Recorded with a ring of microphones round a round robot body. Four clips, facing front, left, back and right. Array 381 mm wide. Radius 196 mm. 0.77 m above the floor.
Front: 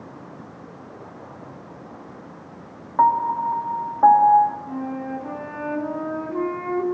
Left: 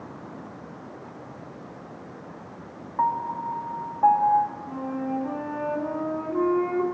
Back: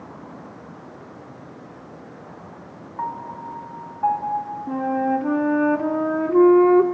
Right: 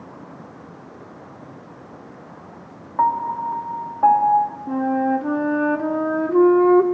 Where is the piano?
30° right, 1.6 m.